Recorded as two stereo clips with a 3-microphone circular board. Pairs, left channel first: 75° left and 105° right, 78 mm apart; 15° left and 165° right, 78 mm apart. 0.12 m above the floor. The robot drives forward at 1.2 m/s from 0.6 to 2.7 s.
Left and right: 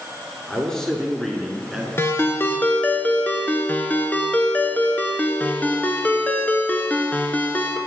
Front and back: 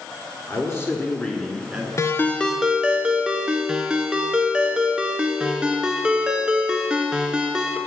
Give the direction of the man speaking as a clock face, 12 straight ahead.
12 o'clock.